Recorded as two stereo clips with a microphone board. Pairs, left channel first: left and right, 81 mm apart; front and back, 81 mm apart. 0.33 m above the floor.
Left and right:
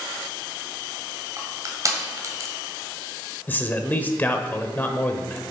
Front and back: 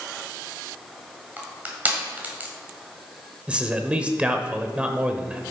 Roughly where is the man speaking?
Behind left.